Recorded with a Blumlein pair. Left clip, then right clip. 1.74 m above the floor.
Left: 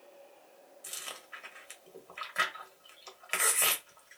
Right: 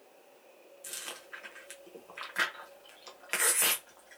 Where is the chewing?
5° right, 0.9 m.